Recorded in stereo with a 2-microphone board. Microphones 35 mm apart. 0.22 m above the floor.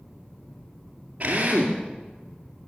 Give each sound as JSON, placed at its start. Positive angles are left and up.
{"t": 1.2, "sound": "a drill", "side_deg": -45, "distance_m": 2.5}